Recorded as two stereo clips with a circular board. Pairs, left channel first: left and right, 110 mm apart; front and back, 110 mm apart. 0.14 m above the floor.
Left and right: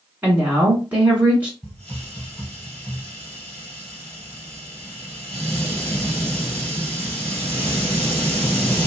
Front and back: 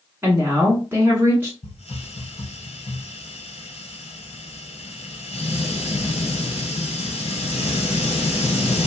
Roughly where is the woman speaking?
Behind right.